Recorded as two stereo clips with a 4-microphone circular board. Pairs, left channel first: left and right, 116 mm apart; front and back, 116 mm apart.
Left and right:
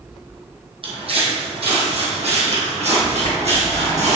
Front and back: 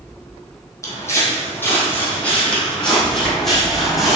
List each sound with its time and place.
0.8 s footsteps: 60° right, 2.5 m; by 4.2 s 90° right, 3.5 m